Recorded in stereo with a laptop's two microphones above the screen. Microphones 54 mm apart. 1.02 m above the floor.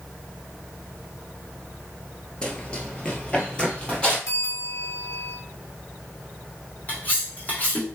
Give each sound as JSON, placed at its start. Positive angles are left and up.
{"t": 2.4, "sound": "running footsteps", "side_deg": 15, "distance_m": 1.0}
{"t": 4.3, "sound": "a bell", "side_deg": 80, "distance_m": 2.5}
{"t": 6.9, "sound": "cutlery clinking", "side_deg": 30, "distance_m": 1.3}